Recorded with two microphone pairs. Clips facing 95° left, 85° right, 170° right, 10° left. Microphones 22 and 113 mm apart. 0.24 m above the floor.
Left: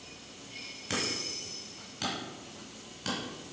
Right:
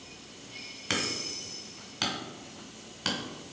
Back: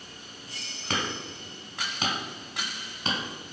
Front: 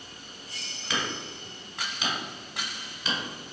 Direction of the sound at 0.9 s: 140° right.